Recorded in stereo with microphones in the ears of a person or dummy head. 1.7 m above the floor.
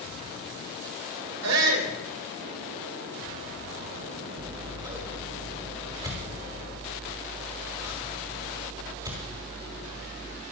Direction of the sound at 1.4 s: 85° right.